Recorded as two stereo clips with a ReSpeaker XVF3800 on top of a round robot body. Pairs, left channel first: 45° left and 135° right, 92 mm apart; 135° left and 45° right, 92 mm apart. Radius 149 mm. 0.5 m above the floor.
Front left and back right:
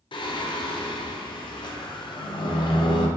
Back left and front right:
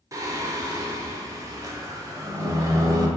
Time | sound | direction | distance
0.1 | singing | 10° left | 0.6 m